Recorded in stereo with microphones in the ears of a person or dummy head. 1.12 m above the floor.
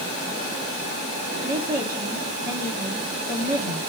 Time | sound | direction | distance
1.4 | a woman speaking | 20° right (ahead or behind) | 1.4 m